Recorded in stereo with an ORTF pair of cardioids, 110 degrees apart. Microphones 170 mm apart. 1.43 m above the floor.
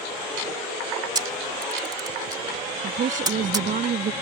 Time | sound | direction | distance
1.1 | a camera shutter | 20° right | ?
2.8 | a woman speaking | 50° right | ?